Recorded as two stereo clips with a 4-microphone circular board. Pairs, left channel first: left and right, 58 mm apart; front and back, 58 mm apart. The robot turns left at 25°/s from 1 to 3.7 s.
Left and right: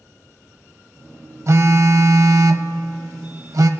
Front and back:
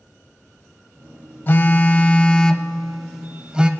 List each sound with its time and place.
1.5 s a phone buzzing: 55° right, 0.5 m; by 3.7 s 110° right, 0.5 m